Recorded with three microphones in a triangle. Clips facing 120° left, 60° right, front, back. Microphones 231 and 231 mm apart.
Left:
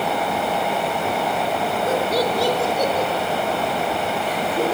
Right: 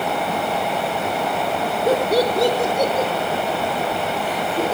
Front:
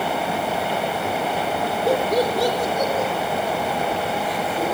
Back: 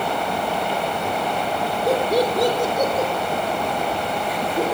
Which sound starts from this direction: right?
Laughter, at 1.9 s.